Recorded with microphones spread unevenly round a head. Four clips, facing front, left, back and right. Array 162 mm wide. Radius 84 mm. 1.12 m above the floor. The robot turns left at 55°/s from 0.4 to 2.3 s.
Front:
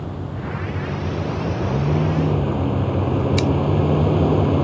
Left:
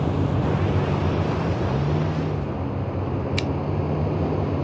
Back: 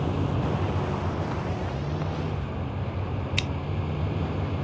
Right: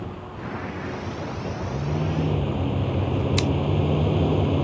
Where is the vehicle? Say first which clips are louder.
Left 11 dB, back 2 dB; 100° left; by 4.7 s 5° right.